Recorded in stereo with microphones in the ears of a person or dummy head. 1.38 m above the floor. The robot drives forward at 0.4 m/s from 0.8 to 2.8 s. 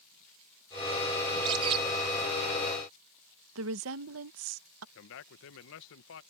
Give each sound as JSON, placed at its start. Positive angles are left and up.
{"t": 1.3, "sound": "a bird", "side_deg": -25}
{"t": 3.5, "sound": "a woman speaking", "side_deg": -75}
{"t": 5.0, "sound": "a man speaking", "side_deg": 70}